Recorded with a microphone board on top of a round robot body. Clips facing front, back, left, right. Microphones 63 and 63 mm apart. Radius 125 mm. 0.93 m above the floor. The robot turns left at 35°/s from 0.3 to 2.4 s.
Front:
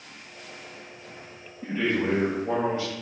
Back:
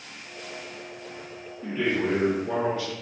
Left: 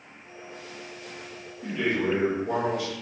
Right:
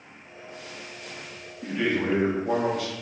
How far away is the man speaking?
About 1.6 m.